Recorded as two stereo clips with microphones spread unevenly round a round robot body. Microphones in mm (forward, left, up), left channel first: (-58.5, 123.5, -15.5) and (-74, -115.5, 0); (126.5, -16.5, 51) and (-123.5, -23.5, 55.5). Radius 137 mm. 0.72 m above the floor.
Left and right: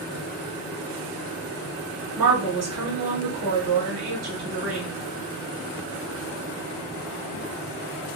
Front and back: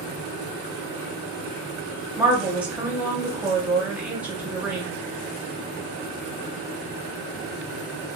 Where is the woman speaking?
95° right, 1.2 m.